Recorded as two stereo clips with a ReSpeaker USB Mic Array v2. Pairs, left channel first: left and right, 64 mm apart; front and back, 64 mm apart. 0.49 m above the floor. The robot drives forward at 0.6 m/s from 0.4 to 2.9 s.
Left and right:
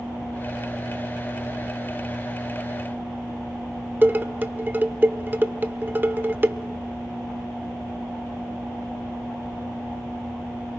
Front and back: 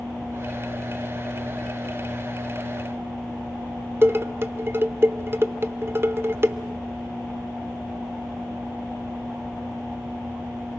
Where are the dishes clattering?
140° right, 0.8 m.